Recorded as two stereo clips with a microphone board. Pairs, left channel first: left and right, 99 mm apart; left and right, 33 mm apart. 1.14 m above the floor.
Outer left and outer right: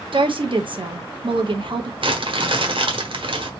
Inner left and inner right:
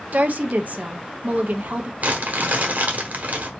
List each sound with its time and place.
0.1 s a woman speaking: 60° right (ahead or behind), 0.9 m
2.0 s crumpling: 60° right (ahead or behind), 1.4 m